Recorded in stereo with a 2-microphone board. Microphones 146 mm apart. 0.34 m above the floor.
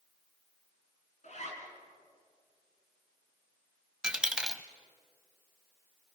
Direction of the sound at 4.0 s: 5° right (ahead or behind).